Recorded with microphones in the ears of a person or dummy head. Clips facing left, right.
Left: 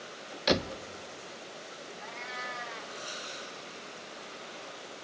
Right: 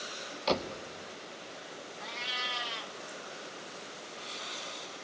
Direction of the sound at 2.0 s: 45° right (ahead or behind).